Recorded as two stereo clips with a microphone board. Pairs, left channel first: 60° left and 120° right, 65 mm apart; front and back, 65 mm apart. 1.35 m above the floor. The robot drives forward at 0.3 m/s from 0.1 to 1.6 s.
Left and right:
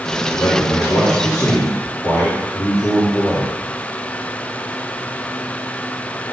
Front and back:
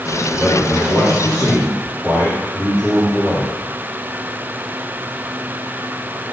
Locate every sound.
0.3 s a man speaking: 90° left, 3 m; by 3.5 s 100° left, 3 m